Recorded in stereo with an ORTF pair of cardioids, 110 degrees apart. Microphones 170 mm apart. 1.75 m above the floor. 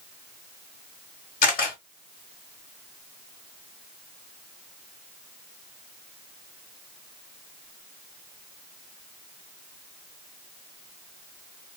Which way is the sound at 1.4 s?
60° left.